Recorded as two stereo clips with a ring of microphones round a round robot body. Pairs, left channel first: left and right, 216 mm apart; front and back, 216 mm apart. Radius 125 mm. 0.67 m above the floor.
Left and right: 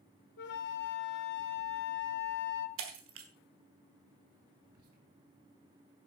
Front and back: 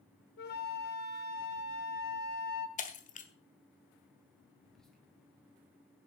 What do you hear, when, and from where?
0.4 s a flute: 50° left, 0.9 m
2.8 s breaking glass: 55° right, 1.6 m
4.6 s whispering: 90° right, 3.5 m